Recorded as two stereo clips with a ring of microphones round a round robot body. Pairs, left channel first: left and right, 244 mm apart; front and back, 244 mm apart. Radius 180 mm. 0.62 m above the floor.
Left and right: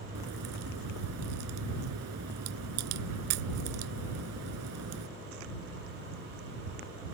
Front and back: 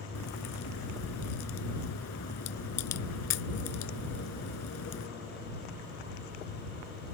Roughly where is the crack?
Ahead right.